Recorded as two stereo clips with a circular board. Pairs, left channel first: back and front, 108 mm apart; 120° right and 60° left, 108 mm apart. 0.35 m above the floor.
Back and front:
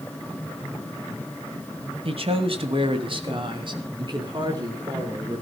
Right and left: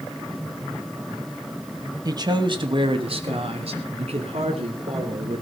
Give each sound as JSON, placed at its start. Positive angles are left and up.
{"t": 2.0, "sound": "a man speaking", "azimuth_deg": 15, "distance_m": 2.0}